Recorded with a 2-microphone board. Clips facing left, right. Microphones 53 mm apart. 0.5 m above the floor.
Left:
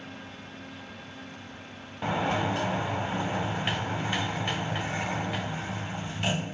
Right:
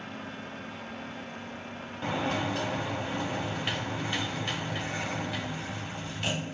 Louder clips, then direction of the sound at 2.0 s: Left 3 dB; 20° left (ahead or behind).